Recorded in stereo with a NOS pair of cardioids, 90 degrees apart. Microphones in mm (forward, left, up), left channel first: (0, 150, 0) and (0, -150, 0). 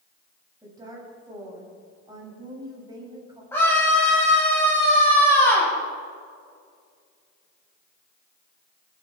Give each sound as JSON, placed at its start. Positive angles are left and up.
{"t": 0.6, "sound": "a woman speaking", "azimuth_deg": -15, "distance_m": 7.5}
{"t": 3.5, "sound": "a scream", "azimuth_deg": 10, "distance_m": 7.5}